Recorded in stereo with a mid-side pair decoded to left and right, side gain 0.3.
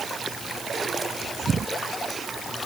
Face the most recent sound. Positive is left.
No sound to turn to.